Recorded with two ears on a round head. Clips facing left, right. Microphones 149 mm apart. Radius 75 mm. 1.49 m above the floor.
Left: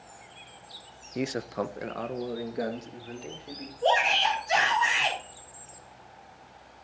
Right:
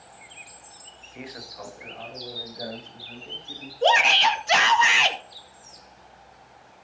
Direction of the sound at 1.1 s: 45° left (ahead or behind).